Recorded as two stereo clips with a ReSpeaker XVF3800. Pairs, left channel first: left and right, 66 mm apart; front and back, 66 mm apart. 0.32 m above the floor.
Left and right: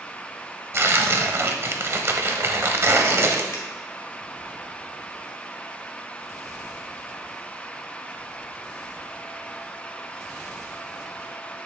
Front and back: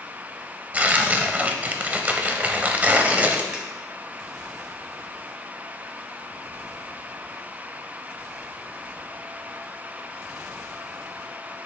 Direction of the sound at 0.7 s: 120° right.